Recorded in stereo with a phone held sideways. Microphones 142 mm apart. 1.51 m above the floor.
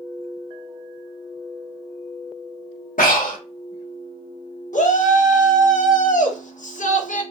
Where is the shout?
65° left (ahead or behind), 0.7 m.